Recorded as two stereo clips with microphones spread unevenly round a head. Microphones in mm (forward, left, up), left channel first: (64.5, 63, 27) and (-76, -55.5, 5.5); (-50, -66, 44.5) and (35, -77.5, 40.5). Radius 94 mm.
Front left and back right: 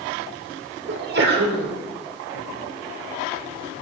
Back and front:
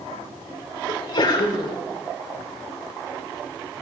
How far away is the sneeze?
About 3.5 m.